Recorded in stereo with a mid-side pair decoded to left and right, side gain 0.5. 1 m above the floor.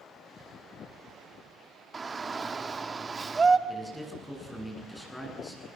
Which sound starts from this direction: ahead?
A man speaking, at 3.7 s.